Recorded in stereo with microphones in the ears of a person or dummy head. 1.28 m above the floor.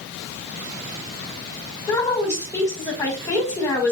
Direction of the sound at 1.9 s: 15° left (ahead or behind).